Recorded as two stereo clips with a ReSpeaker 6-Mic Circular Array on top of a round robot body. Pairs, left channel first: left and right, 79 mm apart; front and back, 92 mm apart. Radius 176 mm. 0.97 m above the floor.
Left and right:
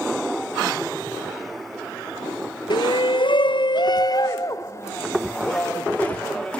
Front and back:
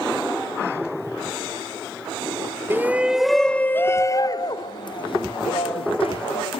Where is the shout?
110° left, 1.0 m; by 6.6 s 15° left, 2 m.